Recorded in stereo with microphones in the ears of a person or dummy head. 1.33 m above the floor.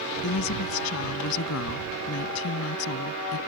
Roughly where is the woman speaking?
Left.